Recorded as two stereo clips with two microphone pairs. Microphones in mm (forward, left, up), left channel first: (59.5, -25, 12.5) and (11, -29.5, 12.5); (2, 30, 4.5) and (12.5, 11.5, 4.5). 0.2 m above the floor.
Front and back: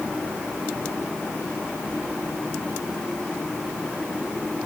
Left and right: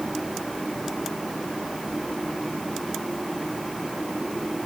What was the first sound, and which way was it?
Only background noise.